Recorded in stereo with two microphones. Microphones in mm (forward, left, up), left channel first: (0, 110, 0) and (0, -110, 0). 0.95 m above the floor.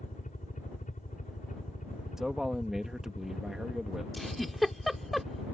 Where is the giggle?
Centre (ahead or behind).